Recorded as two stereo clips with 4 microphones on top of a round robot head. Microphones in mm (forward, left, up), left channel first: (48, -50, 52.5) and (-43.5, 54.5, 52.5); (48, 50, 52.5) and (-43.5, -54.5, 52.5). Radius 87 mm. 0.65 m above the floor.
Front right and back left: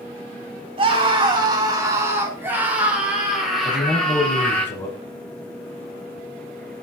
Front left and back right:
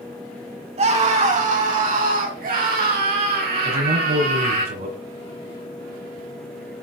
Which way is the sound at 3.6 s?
125° right.